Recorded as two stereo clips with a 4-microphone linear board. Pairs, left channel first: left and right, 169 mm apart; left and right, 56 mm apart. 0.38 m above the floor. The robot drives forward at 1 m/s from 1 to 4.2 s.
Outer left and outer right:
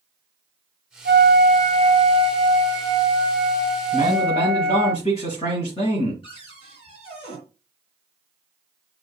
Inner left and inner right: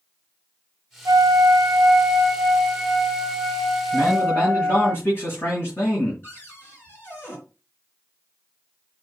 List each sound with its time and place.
1.1 s a flute: 80° right, 0.8 m; by 4.9 s 15° right (ahead or behind), 3.5 m
3.9 s a man speaking: 35° left (ahead or behind), 5.5 m
6.2 s a cupboard door: 30° left (ahead or behind), 4 m